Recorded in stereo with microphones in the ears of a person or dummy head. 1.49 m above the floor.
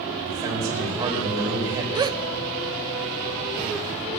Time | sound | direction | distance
0.2 | a man speaking | 20° right (ahead or behind) | 5 m
1.9 | a gasp | 20° right (ahead or behind) | 0.5 m